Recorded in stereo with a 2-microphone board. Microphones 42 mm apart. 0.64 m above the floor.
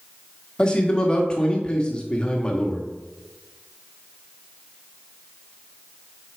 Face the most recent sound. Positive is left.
turn(degrees=20)  # may be behind; listen again after turning